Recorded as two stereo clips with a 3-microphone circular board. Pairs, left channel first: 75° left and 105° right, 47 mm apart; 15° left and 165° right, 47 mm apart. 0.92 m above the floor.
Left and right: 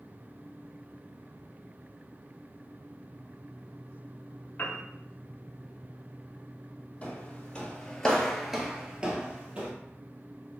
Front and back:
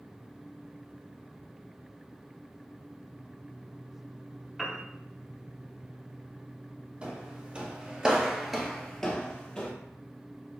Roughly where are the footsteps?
Behind left.